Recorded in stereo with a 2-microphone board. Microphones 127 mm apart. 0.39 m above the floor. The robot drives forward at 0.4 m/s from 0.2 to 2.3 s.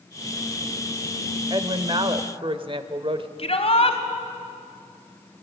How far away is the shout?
About 2.5 m.